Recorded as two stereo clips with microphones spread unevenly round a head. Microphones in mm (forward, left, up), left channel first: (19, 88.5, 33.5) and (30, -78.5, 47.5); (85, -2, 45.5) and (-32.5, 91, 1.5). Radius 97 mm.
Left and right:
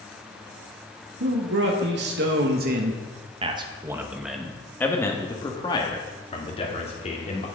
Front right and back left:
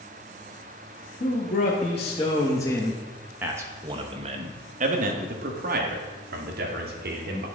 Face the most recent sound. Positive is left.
turn(degrees=145)